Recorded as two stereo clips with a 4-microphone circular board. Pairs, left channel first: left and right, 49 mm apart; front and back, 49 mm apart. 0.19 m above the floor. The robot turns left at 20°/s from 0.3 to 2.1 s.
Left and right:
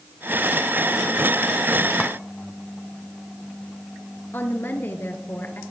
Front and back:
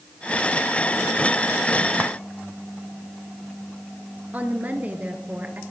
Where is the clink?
155° left, 1.3 m.